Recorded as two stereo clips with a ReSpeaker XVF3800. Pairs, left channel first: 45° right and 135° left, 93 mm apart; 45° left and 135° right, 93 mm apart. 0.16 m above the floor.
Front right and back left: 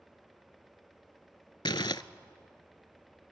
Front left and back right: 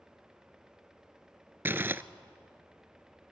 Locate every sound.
1.6 s crumpling: 70° right, 0.6 m